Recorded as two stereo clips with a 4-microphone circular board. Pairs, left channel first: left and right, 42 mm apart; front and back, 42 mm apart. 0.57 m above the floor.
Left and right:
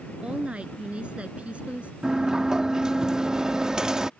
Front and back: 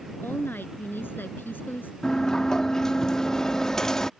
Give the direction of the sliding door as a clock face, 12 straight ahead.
2 o'clock.